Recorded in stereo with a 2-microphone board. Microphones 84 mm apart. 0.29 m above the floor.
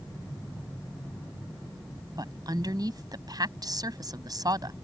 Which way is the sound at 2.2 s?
55° right (ahead or behind).